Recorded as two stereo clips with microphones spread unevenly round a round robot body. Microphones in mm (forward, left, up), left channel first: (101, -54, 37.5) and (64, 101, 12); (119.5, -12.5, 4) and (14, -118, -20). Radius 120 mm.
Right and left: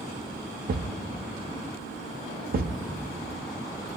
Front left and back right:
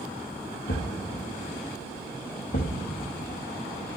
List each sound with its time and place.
0.7 s a thud: 85° left, 0.6 m